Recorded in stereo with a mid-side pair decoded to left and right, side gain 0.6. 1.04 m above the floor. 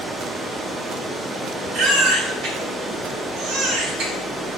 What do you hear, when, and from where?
0.0 s running water: 25° right, 0.7 m
1.7 s a baby crying: 65° right, 1.1 m